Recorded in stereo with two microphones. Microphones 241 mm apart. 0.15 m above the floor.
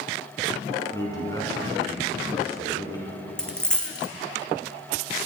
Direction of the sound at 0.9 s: 15° left (ahead or behind).